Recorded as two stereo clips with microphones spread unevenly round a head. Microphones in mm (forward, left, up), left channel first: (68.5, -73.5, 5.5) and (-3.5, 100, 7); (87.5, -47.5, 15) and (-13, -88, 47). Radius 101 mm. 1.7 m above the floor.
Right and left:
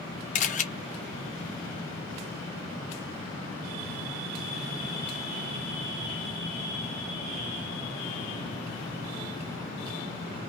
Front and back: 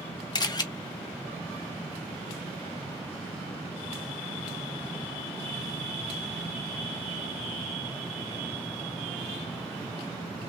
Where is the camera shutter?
35° right, 0.8 m.